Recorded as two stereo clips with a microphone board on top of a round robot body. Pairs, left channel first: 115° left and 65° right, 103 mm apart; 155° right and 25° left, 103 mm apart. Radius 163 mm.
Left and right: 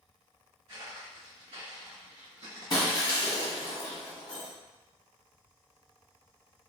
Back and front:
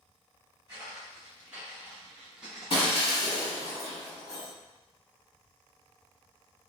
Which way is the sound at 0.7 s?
35° right.